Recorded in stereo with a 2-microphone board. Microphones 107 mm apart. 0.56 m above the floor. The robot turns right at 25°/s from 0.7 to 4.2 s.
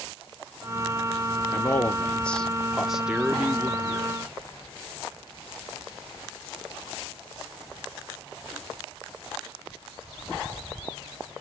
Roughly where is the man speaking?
Behind left.